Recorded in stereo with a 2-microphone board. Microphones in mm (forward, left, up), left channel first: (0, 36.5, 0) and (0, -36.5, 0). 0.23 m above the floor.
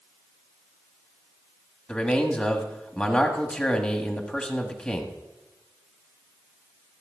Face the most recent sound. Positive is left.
turn(degrees=15)  # may be behind; listen again after turning